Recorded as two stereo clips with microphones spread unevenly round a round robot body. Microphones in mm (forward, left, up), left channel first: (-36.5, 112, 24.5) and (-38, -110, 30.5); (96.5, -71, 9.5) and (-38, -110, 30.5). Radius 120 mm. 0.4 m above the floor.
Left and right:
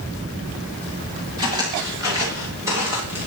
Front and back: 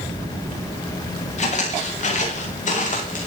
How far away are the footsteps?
About 8 m.